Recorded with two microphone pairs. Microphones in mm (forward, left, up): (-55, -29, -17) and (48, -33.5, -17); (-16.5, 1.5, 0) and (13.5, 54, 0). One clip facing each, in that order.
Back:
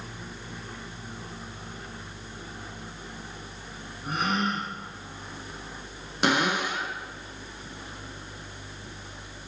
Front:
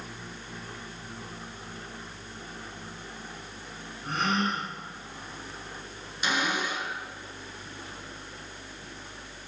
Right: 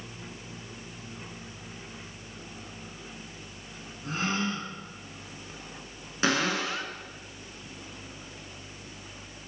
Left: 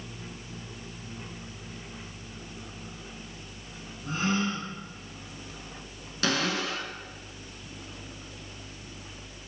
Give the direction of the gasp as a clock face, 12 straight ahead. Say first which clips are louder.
Even, left 2 dB; 4 o'clock.